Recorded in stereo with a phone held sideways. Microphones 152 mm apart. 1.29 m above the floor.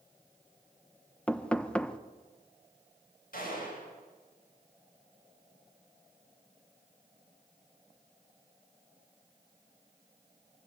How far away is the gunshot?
About 7.5 m.